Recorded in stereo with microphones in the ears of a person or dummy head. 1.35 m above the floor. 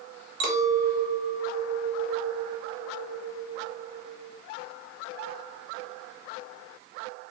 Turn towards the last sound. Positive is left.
turn(degrees=-65)  # may be behind; listen again after turning